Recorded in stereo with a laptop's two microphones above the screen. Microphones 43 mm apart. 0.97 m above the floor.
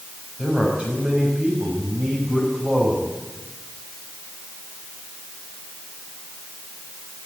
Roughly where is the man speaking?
Right.